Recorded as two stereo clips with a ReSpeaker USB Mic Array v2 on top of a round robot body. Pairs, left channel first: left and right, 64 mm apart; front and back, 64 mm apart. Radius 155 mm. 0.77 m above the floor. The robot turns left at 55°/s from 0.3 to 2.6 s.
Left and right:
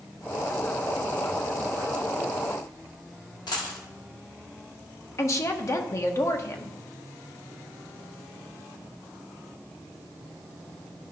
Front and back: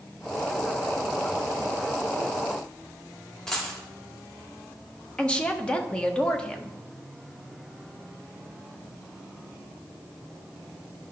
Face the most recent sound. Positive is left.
turn(degrees=70)